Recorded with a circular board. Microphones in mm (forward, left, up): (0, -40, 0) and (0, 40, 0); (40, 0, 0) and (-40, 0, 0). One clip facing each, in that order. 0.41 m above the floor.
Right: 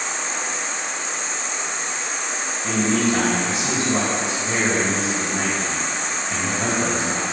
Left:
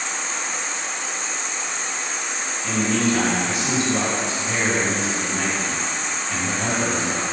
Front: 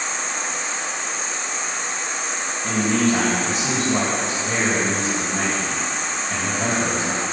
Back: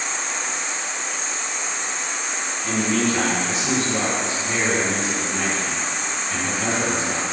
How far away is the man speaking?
About 2.5 m.